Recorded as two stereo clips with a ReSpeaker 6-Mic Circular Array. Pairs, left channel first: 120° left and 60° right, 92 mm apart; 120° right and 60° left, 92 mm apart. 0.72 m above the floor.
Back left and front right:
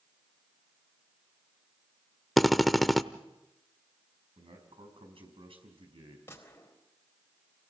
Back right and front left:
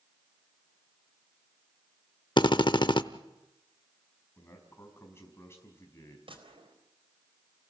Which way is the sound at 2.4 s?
150° right.